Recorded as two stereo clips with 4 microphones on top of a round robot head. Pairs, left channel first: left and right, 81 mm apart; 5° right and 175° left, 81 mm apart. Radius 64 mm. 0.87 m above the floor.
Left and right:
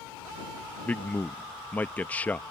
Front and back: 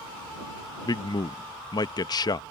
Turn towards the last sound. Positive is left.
turn(degrees=20)